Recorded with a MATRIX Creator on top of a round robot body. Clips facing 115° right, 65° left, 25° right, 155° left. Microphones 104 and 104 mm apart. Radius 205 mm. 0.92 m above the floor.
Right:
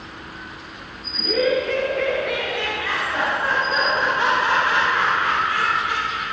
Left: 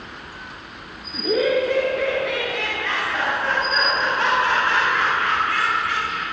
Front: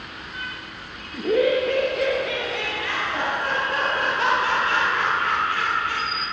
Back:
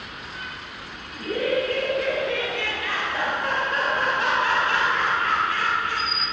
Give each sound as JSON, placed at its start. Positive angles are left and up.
{"t": 1.1, "sound": "laughter", "azimuth_deg": 10, "distance_m": 1.0}